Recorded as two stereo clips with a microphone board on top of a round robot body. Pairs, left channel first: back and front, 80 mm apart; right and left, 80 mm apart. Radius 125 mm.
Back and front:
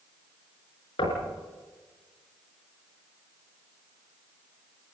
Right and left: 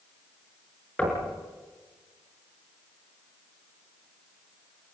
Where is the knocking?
165° right, 5.5 m.